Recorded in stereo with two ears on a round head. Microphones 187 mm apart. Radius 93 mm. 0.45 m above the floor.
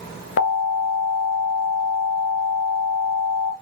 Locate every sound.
0.4 s an alarm: 55° left (ahead or behind), 1.6 m